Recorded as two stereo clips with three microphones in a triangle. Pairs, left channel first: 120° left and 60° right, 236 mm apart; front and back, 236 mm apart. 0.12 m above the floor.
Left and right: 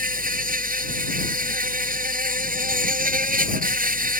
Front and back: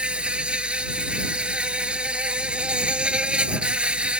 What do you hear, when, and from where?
0.0 s an insect: 95° right